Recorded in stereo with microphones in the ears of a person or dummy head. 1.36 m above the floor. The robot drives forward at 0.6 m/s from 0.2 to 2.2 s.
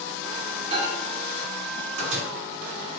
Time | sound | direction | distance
0.7 | a microwave | 40° right (ahead or behind) | 0.9 m